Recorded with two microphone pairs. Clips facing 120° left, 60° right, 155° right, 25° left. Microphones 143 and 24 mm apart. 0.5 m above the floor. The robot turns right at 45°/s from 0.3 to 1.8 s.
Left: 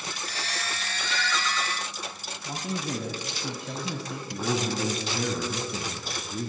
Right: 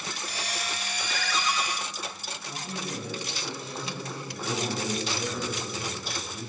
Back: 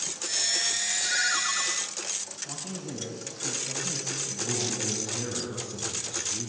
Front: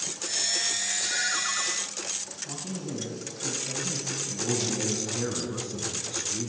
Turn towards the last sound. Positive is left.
turn(degrees=95)